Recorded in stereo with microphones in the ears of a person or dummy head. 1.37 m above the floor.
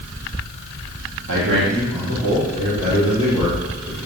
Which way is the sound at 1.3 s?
75° right (ahead or behind).